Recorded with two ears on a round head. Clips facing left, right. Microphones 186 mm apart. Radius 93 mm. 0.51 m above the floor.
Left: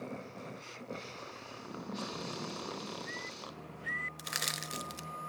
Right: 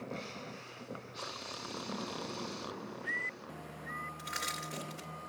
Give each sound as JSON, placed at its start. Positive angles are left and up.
{"t": 1.5, "sound": "a splash", "side_deg": 35, "distance_m": 5.5}
{"t": 4.2, "sound": "crushing", "side_deg": 55, "distance_m": 1.0}